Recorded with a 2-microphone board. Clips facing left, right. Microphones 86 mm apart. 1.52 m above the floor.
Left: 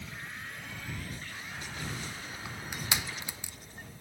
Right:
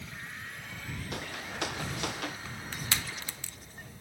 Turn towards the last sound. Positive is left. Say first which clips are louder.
# left 1 dB
turn(degrees=15)  # may be behind; listen again after turning